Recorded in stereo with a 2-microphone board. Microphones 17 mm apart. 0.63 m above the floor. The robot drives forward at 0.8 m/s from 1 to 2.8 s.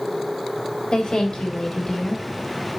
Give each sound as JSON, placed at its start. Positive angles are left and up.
{"t": 0.9, "sound": "a woman speaking", "side_deg": 70, "distance_m": 3.0}